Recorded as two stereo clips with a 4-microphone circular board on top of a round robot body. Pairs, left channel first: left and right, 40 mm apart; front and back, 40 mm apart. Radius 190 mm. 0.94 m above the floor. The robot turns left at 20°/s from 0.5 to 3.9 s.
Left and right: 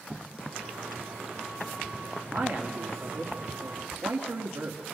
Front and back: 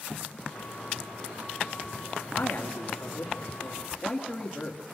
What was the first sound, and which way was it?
A man speaking, 40° right.